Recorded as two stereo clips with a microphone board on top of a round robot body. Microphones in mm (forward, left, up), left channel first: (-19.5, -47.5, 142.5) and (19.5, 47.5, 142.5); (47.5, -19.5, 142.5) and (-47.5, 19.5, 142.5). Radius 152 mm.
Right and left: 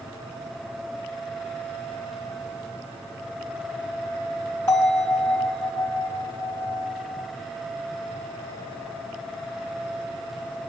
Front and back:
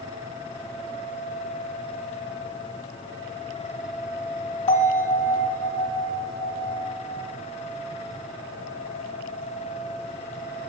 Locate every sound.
4.7 s a bell: 50° right, 1.6 m